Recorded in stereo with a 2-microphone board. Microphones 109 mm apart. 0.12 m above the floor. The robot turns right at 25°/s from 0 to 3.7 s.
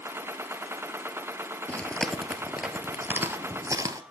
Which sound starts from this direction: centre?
Chewing, at 1.7 s.